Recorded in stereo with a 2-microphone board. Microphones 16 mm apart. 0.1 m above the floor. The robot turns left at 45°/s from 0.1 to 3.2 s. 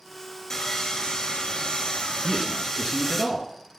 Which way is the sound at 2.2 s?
35° right (ahead or behind).